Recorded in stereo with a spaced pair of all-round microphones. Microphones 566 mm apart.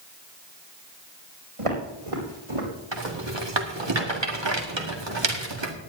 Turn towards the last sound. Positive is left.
turn(degrees=-50)  # may be behind; listen again after turning